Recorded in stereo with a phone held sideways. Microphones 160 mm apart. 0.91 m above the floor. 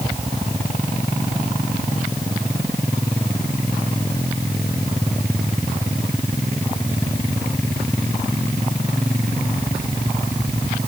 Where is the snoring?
I don't hear snoring.